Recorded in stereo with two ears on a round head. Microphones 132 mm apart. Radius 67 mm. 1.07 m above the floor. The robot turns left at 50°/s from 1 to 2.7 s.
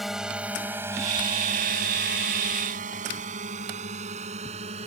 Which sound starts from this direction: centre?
A drone, at 0.0 s.